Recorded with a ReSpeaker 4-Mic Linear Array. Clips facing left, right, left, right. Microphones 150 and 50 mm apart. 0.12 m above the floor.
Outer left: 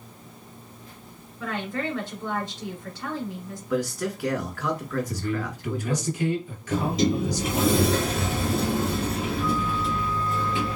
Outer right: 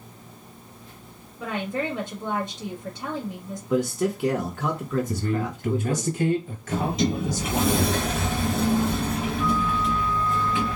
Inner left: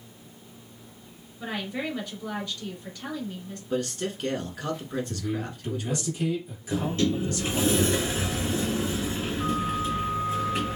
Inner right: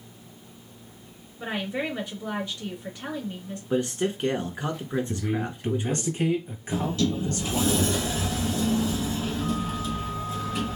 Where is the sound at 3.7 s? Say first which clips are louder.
Outer right 3 dB, inner right 4 dB; 25° right (ahead or behind), 1.2 m.